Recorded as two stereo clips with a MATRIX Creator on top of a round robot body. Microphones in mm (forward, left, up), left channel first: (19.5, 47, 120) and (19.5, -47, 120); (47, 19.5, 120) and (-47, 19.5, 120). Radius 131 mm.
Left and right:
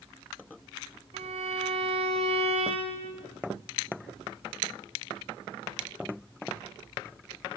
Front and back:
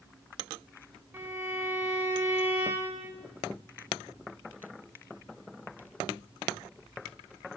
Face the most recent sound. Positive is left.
turn(degrees=-105)